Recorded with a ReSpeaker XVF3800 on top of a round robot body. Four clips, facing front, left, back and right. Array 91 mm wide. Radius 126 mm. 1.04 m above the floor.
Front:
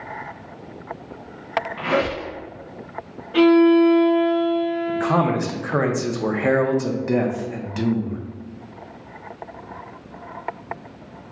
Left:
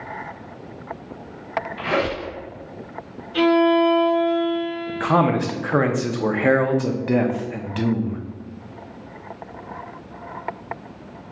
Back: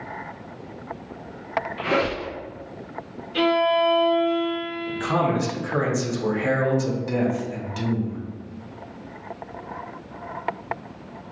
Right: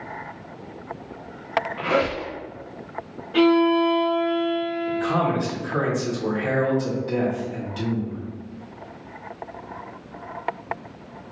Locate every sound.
1.8 s a squeak: 20° right, 1.7 m
3.3 s a violin: 35° right, 0.6 m
4.9 s a man speaking: 60° left, 0.6 m